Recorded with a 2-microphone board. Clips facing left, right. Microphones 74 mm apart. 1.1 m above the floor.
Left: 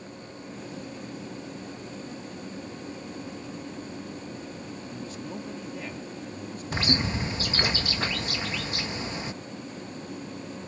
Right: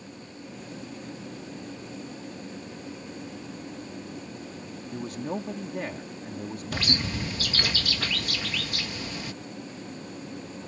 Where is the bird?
25° left (ahead or behind).